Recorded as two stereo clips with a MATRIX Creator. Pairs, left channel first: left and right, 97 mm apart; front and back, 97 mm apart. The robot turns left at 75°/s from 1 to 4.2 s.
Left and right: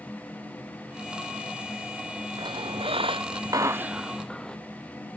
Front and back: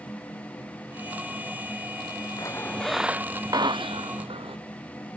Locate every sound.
2.4 s a squeak: 50° right; by 4.6 s 175° left